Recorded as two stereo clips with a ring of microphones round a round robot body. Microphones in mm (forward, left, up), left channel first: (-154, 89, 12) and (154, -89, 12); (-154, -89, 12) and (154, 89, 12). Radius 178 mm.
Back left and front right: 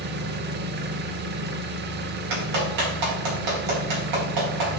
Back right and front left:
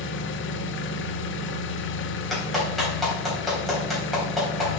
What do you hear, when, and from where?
0.0 s an engine running: 90° right, 0.8 m
2.3 s a clap: 60° right, 3.5 m